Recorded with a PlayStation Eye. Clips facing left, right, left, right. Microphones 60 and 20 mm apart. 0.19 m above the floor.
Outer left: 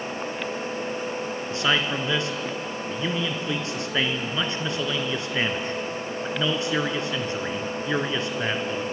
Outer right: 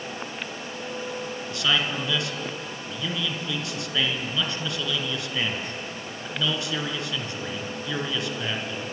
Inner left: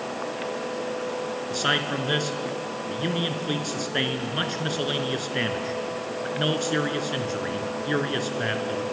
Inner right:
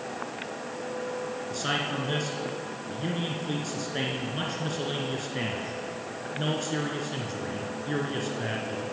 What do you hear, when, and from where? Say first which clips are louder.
1.5 s a man speaking: outer left 2 dB, inner left 5 dB; 30° left (ahead or behind), 3 m